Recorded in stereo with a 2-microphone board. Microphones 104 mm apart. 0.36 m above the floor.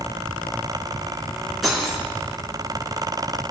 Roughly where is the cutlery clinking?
Centre.